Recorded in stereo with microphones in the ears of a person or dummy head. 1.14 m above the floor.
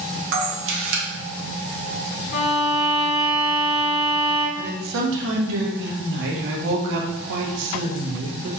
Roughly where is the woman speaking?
Right.